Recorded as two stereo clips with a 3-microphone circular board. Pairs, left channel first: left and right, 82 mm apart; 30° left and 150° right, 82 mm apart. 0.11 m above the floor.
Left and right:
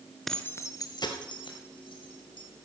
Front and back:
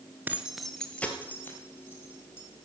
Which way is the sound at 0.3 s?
175° left.